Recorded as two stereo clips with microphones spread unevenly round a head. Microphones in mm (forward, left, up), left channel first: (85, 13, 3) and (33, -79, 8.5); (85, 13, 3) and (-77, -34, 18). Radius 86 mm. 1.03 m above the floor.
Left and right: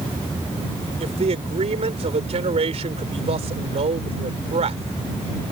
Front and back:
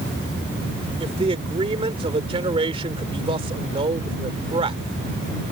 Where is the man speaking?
105° right.